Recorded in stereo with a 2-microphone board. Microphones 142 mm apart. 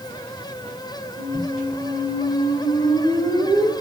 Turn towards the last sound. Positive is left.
turn(degrees=-85)